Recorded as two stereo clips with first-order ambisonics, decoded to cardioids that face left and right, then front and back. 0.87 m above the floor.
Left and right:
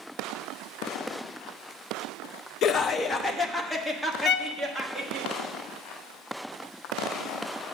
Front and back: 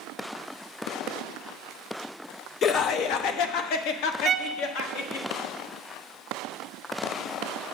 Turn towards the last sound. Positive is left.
turn(degrees=120)